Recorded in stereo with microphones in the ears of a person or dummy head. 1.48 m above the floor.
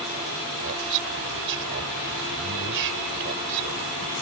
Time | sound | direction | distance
0.6 | a man speaking | 60° right (ahead or behind) | ?